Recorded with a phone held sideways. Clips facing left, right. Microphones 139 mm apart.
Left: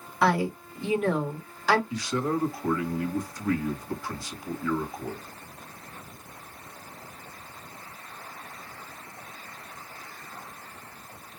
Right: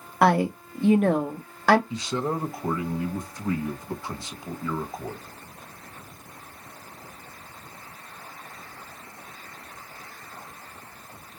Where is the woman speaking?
55° right (ahead or behind), 1.4 m.